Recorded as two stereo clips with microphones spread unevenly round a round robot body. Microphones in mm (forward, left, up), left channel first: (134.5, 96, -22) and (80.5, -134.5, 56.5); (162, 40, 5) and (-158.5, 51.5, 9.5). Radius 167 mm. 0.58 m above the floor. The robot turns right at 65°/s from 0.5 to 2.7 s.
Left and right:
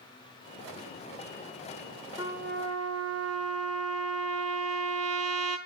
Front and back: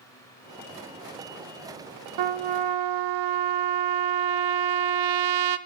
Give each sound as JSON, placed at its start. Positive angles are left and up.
{"t": 2.2, "sound": "a trumpet", "azimuth_deg": 175, "distance_m": 0.6}